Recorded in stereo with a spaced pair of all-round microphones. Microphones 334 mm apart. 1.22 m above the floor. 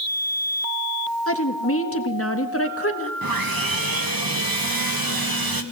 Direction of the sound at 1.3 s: 40° left (ahead or behind).